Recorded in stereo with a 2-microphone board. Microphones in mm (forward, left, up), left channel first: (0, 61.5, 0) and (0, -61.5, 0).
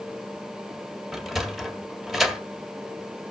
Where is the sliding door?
Centre (ahead or behind), 1.4 m.